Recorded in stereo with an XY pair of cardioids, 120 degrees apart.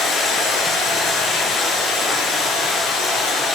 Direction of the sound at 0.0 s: 55° left.